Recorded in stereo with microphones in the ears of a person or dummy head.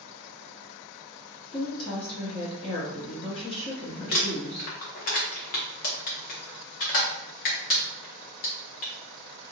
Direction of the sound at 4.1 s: 50° left (ahead or behind).